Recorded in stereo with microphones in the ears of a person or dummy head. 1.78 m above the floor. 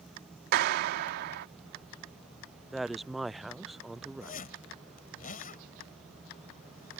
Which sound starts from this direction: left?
A zipper, at 4.2 s.